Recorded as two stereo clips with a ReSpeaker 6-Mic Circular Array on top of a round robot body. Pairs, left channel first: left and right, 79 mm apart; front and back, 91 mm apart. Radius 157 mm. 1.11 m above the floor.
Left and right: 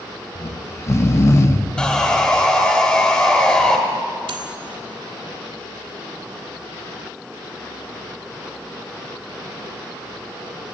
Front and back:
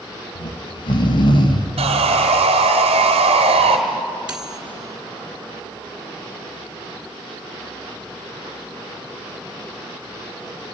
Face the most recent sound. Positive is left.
turn(degrees=-100)